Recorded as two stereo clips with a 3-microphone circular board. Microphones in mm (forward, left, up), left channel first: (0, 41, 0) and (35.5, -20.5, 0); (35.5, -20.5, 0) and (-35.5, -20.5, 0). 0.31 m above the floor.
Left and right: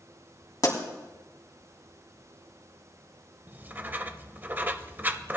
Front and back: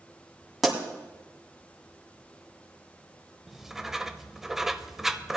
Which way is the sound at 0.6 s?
95° left.